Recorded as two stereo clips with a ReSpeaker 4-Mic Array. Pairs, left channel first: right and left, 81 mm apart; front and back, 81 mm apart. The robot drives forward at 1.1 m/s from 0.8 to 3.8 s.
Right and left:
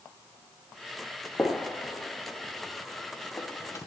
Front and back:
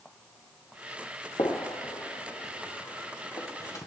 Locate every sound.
1.4 s a gunshot: 15° right, 4 m; by 3.9 s 45° right, 1.7 m